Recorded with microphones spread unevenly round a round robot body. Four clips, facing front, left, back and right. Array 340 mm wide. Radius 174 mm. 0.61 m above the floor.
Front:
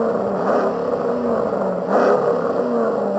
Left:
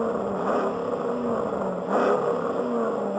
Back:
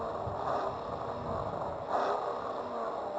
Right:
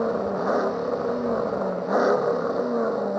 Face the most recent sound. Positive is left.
turn(degrees=0)